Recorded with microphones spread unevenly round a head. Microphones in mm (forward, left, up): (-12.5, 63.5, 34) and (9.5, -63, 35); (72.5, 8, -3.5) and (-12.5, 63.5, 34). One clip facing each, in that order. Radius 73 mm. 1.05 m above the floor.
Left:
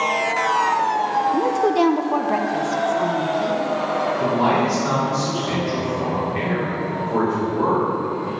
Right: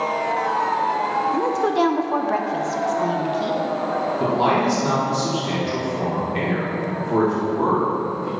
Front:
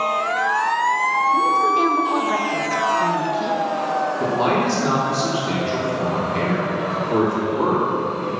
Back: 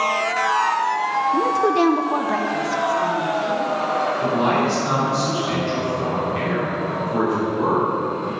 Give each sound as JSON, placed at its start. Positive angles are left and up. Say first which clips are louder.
{"t": 1.3, "sound": "a woman speaking", "louder": "left 2 dB, back 1 dB", "azimuth_deg": 180, "distance_m": 0.6}
{"t": 4.2, "sound": "a man speaking", "louder": "right 1 dB, even", "azimuth_deg": -20, "distance_m": 3.0}